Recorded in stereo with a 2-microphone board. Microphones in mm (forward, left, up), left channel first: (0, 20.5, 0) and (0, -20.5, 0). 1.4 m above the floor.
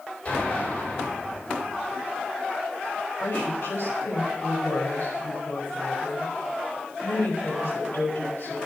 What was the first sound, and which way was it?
An explosion, 25° left (ahead or behind).